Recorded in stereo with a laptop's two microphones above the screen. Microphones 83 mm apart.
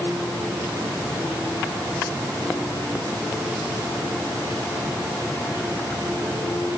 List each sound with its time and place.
Only background noise.